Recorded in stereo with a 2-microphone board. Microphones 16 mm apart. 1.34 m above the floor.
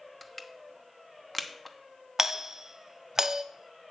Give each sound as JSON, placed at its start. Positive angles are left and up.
{"t": 0.2, "sound": "crushing", "side_deg": 10, "distance_m": 0.9}
{"t": 2.2, "sound": "a doorbell", "side_deg": -30, "distance_m": 0.6}